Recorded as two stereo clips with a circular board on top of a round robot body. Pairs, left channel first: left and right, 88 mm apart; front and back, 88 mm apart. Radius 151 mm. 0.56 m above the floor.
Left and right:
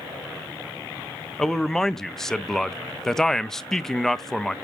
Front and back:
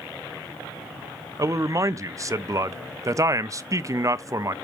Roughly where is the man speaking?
Behind.